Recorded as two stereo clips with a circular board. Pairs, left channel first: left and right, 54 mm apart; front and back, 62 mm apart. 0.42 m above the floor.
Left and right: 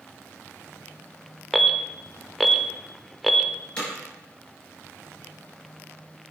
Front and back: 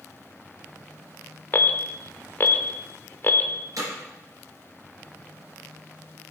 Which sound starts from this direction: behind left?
Hammering, at 3.8 s.